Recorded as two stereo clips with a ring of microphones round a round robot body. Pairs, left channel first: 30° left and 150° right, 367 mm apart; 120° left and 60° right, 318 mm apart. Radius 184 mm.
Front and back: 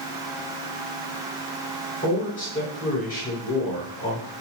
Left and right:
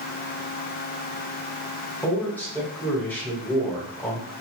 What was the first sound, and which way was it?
A man speaking, 45° left.